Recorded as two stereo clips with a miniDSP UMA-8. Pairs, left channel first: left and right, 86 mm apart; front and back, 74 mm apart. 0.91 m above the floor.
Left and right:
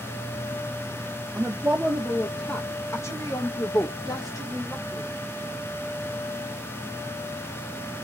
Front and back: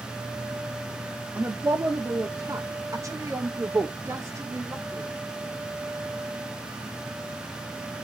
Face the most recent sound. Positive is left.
turn(degrees=120)